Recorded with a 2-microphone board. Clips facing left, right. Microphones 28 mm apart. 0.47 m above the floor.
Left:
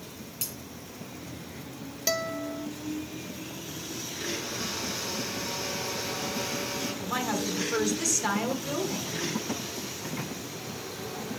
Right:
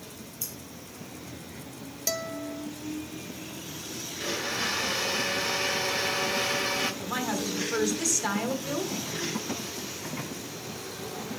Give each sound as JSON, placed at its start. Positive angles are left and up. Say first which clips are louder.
{"t": 0.4, "sound": "breaking glass", "louder": "left 2 dB", "side_deg": 85, "distance_m": 5.5}
{"t": 2.1, "sound": "a guitar", "louder": "left 3 dB", "side_deg": 20, "distance_m": 0.5}
{"t": 4.2, "sound": "a blender", "louder": "right 5 dB", "side_deg": -60, "distance_m": 2.5}
{"t": 7.0, "sound": "a woman speaking", "louder": "left 1 dB", "side_deg": 5, "distance_m": 1.5}